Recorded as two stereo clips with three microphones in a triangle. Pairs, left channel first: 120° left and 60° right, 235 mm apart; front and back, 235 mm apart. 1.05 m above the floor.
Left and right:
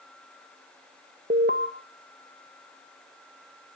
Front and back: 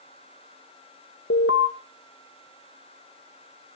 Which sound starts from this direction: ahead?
An alarm, at 1.3 s.